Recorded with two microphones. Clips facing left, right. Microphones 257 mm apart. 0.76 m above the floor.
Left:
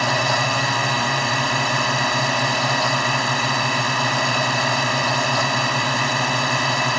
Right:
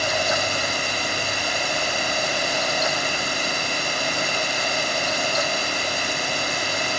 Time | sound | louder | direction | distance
0.0 | a drone | left 2 dB | 75° left (ahead or behind) | ?